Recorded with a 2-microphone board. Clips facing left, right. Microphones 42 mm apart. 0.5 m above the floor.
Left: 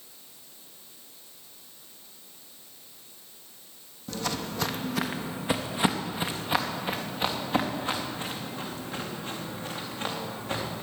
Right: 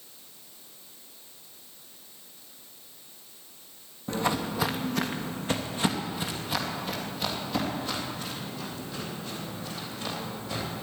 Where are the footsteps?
30° right (ahead or behind), 1.1 m; by 10.8 s 45° left (ahead or behind), 6 m.